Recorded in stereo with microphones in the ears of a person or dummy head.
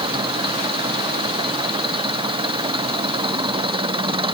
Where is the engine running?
25° right (ahead or behind).